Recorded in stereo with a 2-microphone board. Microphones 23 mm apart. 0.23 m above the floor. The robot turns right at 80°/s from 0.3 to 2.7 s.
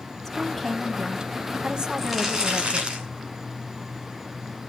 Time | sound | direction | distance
0.2 | a woman speaking | 150° left | 1.3 m
2.0 | crumpling | straight behind | 3 m